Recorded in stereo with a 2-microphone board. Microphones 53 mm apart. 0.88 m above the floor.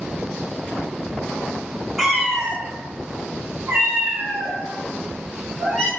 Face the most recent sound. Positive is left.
turn(degrees=-30)  # may be behind; listen again after turning